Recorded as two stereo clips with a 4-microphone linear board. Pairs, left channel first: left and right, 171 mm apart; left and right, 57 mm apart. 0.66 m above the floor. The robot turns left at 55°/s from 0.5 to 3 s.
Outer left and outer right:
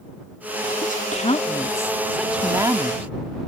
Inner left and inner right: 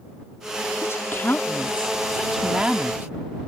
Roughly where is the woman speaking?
Left.